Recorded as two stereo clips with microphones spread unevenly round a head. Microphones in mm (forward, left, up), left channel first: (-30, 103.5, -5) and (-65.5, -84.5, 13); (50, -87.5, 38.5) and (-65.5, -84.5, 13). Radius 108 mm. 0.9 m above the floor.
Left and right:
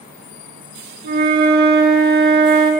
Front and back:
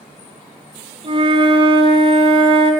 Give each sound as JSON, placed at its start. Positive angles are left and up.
{"t": 1.0, "sound": "a flute", "azimuth_deg": -140, "distance_m": 1.4}